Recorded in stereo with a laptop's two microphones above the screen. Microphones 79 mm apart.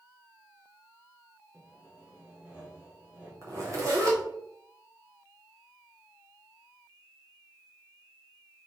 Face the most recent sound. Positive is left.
turn(degrees=-40)  # may be behind; listen again after turning